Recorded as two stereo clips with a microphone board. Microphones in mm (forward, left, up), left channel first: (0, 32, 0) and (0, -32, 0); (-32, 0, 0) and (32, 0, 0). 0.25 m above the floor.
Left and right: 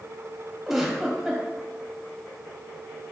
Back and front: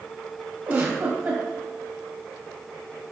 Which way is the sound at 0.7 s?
10° right.